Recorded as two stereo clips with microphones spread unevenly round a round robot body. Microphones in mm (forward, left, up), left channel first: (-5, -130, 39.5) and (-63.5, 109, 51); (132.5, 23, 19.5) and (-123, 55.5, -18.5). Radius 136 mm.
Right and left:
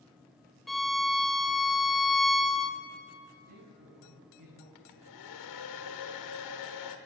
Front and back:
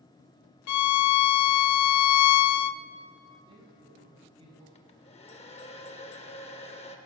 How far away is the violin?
About 0.5 m.